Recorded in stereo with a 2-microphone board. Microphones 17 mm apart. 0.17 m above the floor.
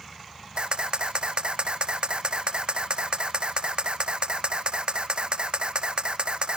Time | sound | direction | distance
0.6 | a camera shutter | 65° right (ahead or behind) | ?